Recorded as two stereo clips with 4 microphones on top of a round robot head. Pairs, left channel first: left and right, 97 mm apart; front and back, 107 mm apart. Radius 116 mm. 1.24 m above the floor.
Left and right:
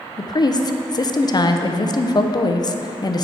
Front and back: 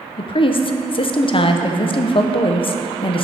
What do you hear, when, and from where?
0.2 s a woman speaking: 40° left, 0.6 m